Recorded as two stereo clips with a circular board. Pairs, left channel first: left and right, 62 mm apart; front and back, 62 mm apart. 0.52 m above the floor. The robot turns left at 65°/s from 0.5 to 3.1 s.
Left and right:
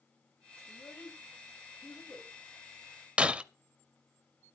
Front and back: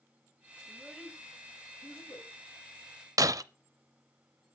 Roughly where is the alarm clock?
No alarm clock in this recording.